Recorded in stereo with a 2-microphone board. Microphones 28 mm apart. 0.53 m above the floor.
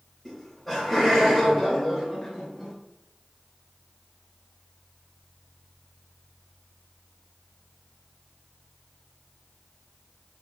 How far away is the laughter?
About 0.8 m.